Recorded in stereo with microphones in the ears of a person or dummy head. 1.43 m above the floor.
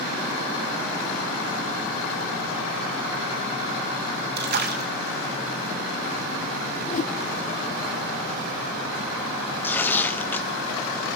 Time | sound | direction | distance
4.4 | a splash | 55° right (ahead or behind) | 2.0 m
6.9 | a whoosh | 45° left (ahead or behind) | 1.2 m
9.6 | tearing paper | 5° left (ahead or behind) | 1.0 m